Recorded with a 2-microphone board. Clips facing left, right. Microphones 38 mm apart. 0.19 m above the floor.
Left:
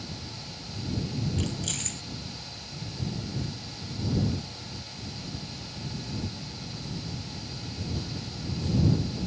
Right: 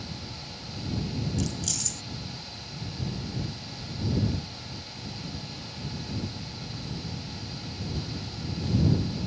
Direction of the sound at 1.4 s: 35° left (ahead or behind).